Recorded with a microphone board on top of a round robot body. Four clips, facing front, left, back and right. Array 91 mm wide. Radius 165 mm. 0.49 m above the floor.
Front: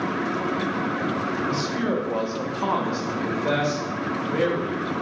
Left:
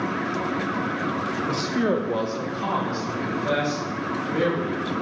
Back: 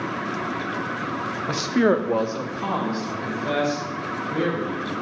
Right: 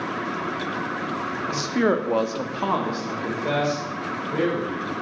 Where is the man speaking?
170° right, 1.1 m; by 4.9 s 35° right, 4 m.